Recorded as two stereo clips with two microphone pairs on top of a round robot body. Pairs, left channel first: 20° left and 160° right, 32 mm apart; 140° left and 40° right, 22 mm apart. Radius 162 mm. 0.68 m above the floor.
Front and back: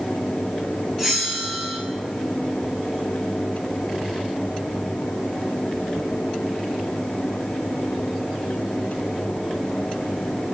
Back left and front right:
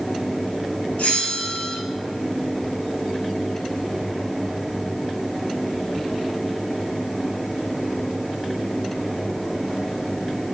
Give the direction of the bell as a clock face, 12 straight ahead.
8 o'clock.